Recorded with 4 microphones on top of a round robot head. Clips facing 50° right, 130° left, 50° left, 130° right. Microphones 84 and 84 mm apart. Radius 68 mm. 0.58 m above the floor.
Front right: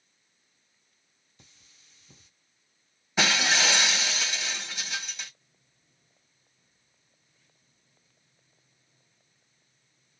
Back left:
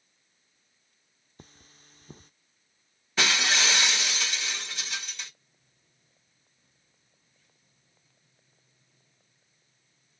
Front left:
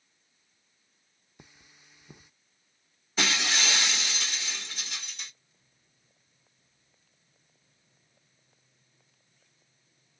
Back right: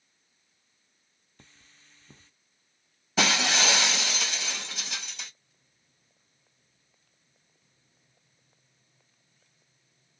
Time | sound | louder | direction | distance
1.4 | cutlery clinking | back left 9 dB, front left 2 dB | 125° left | 0.5 m
3.2 | breaking glass | front right 1 dB, back right 4 dB | 130° right | 2 m